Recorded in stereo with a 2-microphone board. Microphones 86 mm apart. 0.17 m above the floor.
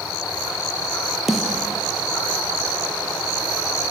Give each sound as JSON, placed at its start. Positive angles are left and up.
{"t": 1.3, "sound": "a snare drum", "side_deg": -5, "distance_m": 4.5}